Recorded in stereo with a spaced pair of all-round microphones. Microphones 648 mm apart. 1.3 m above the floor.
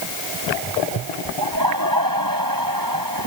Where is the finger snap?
I don't hear a finger snap.